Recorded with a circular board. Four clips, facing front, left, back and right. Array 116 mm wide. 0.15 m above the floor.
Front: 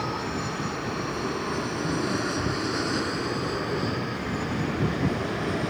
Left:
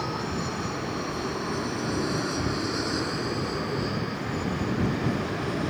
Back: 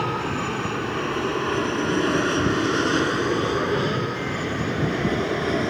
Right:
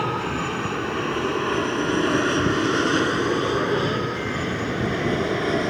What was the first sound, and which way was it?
An aircraft, 125° right.